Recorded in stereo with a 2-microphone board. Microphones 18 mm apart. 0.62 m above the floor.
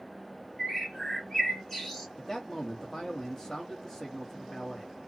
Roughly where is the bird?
Centre.